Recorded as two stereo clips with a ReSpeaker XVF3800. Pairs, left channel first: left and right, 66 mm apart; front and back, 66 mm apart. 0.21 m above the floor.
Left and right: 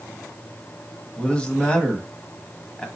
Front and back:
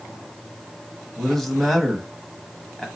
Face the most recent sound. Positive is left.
turn(degrees=75)